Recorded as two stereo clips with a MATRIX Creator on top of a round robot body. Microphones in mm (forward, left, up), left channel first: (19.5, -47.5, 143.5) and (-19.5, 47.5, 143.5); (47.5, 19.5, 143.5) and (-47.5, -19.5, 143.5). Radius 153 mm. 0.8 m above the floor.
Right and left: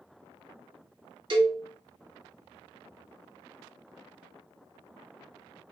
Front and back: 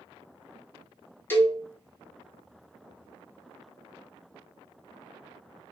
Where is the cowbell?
90° left, 1.4 m.